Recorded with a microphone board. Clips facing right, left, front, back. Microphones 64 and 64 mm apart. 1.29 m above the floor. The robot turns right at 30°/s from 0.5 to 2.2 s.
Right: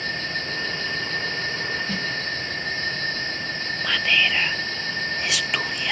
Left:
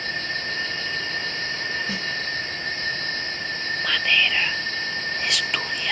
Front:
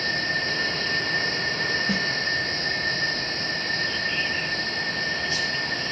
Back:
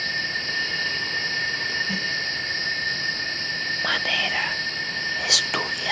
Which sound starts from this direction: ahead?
A snare drum, at 1.9 s.